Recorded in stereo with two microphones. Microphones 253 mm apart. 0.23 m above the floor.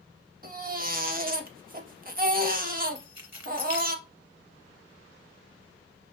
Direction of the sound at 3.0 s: 35° left (ahead or behind).